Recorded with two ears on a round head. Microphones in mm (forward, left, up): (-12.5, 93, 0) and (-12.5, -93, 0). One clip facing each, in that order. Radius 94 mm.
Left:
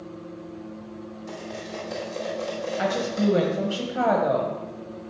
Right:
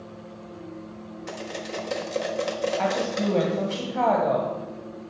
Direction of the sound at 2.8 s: 15° left (ahead or behind).